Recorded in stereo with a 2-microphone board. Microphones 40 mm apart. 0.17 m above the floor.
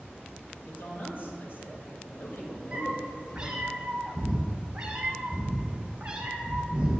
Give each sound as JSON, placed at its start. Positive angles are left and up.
{"t": 0.7, "sound": "a man speaking", "side_deg": 50, "distance_m": 4.5}
{"t": 2.7, "sound": "a cat meowing", "side_deg": -20, "distance_m": 3.0}